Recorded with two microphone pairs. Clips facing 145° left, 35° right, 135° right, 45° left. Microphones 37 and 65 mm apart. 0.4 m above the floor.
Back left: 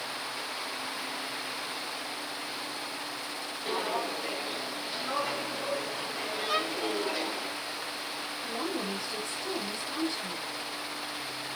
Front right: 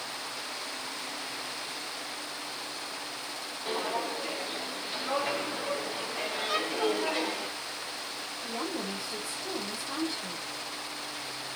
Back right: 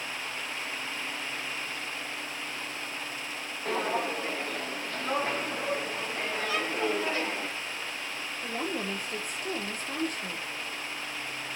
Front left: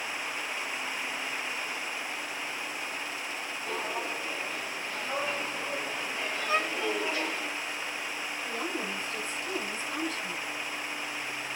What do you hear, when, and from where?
3.6 s footsteps: 125° right, 3 m; by 7.5 s 80° right, 4 m
6.5 s a violin: 70° left, 0.7 m
8.4 s a woman speaking: 120° right, 8 m